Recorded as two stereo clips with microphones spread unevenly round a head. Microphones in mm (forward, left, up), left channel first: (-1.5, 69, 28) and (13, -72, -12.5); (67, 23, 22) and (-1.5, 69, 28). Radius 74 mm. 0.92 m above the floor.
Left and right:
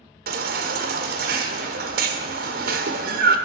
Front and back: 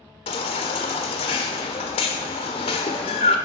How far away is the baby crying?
About 1.4 m.